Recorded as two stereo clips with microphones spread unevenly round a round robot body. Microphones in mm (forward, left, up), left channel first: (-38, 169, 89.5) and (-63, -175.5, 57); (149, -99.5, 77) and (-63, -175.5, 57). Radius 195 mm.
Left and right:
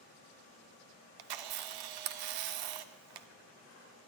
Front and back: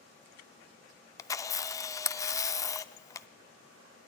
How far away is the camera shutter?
About 0.5 m.